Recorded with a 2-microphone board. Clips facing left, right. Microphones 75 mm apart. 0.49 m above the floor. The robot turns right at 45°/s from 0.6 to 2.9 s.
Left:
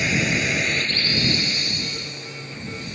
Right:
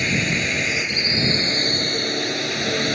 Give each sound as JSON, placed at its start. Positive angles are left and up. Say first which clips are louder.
{"t": 0.0, "sound": "a drone", "louder": "even", "side_deg": 0}